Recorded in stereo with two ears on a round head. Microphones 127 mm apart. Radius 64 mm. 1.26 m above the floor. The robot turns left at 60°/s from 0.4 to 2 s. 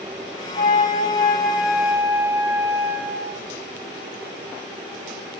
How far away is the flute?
About 8 m.